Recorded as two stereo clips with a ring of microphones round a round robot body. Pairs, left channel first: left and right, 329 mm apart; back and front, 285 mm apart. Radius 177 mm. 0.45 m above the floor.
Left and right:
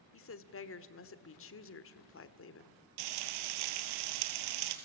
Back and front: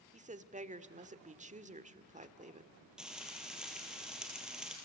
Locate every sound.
0.1 s a woman speaking: 55° left, 1.3 m
3.0 s frying: 85° right, 2.0 m